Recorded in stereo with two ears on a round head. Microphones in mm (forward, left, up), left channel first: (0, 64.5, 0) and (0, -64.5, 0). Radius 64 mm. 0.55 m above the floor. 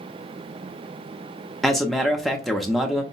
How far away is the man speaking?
About 0.8 m.